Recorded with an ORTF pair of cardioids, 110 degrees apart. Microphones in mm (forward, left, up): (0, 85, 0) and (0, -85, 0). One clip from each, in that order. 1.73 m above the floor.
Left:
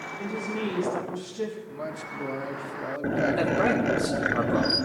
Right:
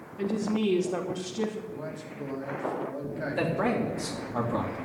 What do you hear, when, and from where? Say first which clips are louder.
0.2 s a woman speaking: right 3 dB; 40° right, 3 m
1.7 s a man speaking: left 4 dB; 30° left, 3 m
3.4 s a man speaking: even; 5° right, 3.5 m